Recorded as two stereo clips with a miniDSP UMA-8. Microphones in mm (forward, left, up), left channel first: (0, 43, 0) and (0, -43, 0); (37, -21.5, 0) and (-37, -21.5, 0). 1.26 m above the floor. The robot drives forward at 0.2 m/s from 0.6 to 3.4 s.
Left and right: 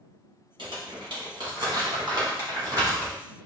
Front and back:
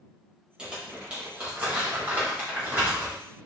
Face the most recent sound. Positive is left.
turn(degrees=-120)